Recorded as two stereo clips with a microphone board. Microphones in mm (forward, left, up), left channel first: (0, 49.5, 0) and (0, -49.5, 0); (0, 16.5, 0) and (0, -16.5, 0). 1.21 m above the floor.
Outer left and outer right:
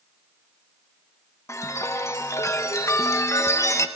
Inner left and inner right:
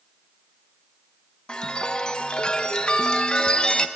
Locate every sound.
1.5 s a chime: 30° left (ahead or behind), 1.1 m